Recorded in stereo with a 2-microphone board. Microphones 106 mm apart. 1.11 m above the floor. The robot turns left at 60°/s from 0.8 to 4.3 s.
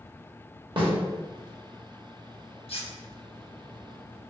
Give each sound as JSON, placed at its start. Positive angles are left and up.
{"t": 0.8, "sound": "a snare drum", "side_deg": -55, "distance_m": 1.1}
{"t": 2.7, "sound": "cutlery clinking", "side_deg": 65, "distance_m": 0.8}